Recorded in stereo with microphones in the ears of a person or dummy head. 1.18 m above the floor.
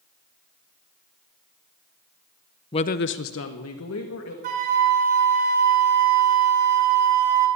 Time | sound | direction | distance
2.7 | a woman speaking | 20° left (ahead or behind) | 0.6 m
4.4 | a flute | 40° right (ahead or behind) | 1.6 m